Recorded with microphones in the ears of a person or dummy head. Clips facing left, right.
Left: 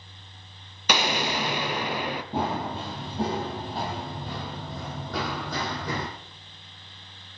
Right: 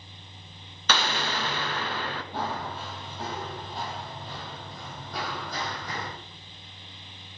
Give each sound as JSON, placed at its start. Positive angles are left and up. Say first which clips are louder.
{"t": 0.9, "sound": "an explosion", "louder": "left 3 dB", "side_deg": 10, "distance_m": 0.7}
{"t": 2.3, "sound": "running footsteps", "louder": "left 5 dB", "side_deg": 20, "distance_m": 2.0}